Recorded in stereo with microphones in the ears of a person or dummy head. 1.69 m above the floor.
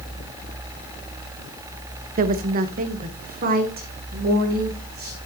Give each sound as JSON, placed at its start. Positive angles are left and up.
{"t": 2.2, "sound": "a woman speaking", "side_deg": -45, "distance_m": 0.6}